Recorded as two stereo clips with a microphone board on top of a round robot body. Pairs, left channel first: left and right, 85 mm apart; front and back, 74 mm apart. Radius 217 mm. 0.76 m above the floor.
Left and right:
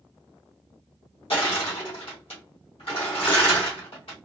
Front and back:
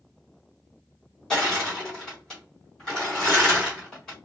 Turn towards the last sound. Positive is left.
turn(degrees=80)